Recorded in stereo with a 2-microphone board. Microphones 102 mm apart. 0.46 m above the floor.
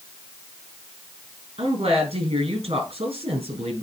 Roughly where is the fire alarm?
No fire alarm in this recording.